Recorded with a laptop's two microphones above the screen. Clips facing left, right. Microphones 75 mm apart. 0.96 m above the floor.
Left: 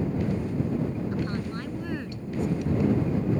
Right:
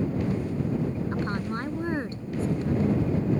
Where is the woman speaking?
35° right (ahead or behind).